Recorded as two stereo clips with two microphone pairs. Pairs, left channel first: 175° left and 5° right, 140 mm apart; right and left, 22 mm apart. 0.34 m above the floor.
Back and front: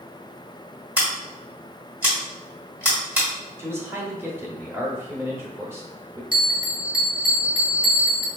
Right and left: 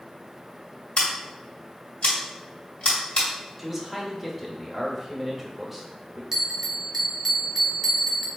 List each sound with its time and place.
1.0 s scissors: 80° right, 1.8 m
3.6 s a man speaking: 35° left, 0.8 m
6.3 s a bell: 30° left, 0.8 m